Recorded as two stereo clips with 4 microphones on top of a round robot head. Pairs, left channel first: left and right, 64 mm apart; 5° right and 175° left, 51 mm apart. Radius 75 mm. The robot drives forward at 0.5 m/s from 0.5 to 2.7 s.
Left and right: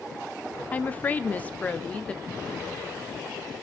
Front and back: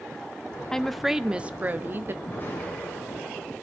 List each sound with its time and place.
0.7 s a woman speaking: 60° left, 0.6 m; by 2.1 s 160° left, 0.9 m
2.2 s an explosion: 45° left, 9 m